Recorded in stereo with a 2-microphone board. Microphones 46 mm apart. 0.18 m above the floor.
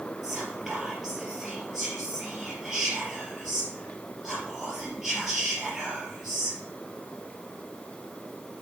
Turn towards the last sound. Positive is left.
turn(degrees=-10)  # may be behind; listen again after turning